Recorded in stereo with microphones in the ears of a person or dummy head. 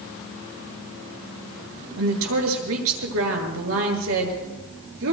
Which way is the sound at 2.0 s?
80° right.